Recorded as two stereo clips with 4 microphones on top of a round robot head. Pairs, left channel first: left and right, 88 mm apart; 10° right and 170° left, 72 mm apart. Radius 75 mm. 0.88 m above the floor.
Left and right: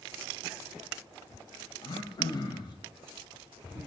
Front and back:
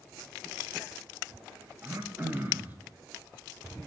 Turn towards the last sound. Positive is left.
turn(degrees=110)